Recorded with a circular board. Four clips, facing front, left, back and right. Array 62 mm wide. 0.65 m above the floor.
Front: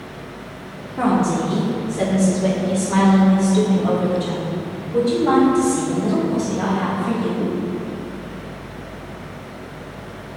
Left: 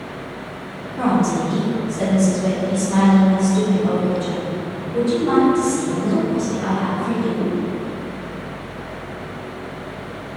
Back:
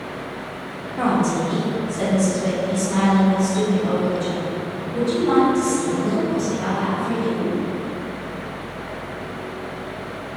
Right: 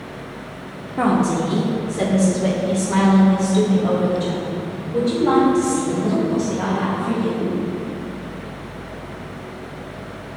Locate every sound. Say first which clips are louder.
1.0 s a woman speaking: even, front 2 dB; 85° right, 1.5 m; by 7.5 s 40° right, 5 m